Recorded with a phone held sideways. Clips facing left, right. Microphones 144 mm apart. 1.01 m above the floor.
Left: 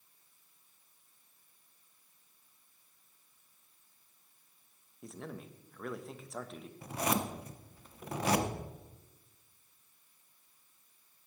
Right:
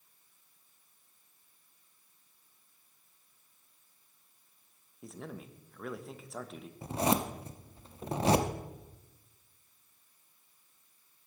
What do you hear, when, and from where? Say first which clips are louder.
5.0 s a man speaking: even; centre (ahead or behind), 0.9 m
6.8 s a zipper: right 4 dB; 25° right (ahead or behind), 0.7 m